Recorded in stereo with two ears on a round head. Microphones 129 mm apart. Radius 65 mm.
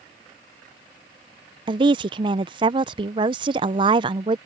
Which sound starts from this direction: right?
A woman speaking, at 1.7 s.